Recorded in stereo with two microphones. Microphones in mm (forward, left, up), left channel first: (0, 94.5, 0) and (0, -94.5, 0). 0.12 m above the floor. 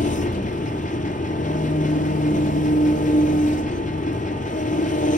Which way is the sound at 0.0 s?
45° left (ahead or behind).